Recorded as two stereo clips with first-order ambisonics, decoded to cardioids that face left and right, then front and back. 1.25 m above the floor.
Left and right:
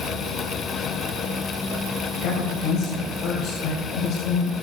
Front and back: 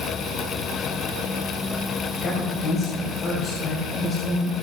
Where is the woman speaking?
55° left, 2.5 m.